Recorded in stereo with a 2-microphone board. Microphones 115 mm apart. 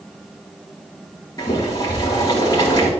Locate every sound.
1.4 s boiling: 35° left (ahead or behind), 4 m